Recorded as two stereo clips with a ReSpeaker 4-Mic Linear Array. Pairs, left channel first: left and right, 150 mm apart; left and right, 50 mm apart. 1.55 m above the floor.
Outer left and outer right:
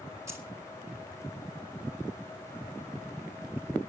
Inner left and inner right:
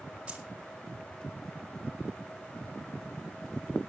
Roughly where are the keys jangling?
Centre.